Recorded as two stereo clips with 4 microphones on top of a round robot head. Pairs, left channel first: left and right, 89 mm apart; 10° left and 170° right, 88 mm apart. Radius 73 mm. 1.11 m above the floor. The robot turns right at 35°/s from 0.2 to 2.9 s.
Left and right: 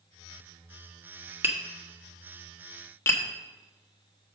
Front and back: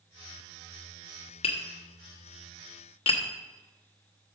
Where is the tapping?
25° right, 1.2 m; by 3.2 s 25° left, 1.2 m.